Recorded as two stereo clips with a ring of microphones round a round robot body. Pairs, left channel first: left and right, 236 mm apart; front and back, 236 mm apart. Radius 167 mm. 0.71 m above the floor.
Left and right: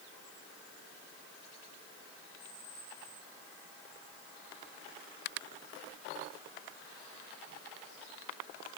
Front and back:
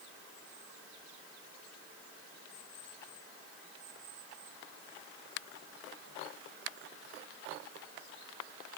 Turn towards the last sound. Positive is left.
No sound to turn to.